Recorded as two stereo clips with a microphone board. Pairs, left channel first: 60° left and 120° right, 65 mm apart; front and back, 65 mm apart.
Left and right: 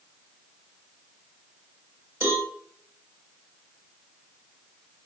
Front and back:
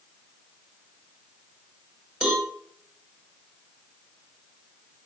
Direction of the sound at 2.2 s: 110° right.